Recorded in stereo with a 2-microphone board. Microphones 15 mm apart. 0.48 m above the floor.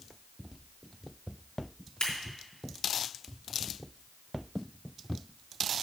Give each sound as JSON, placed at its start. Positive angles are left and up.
{"t": 2.0, "sound": "scissors", "side_deg": 60, "distance_m": 3.5}